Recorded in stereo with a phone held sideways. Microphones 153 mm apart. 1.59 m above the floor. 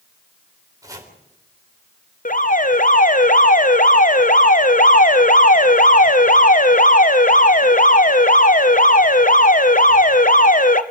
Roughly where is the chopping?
Right.